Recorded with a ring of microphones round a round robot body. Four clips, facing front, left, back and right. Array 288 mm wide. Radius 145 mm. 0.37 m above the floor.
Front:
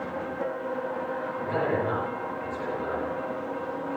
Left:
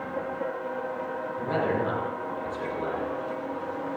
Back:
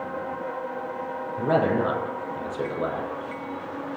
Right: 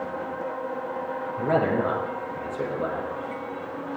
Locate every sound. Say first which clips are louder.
1.4 s a man speaking: right 4 dB, back 6 dB; 135° right, 9.5 m